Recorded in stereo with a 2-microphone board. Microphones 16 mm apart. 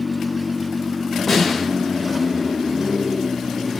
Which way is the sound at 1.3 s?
Centre (ahead or behind).